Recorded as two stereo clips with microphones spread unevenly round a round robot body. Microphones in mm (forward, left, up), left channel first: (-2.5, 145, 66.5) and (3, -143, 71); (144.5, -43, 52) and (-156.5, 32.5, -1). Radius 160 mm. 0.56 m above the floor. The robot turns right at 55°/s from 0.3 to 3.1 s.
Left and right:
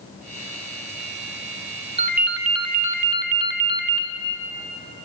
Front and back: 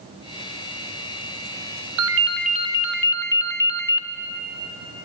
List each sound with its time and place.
2.0 s a ringtone: 160° right, 0.8 m; by 4.1 s 95° right, 0.8 m